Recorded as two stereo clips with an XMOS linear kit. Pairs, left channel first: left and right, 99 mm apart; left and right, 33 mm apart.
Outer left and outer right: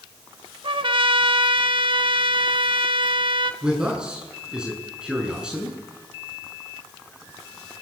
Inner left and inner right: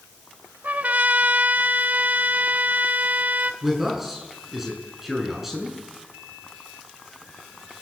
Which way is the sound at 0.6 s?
60° right (ahead or behind).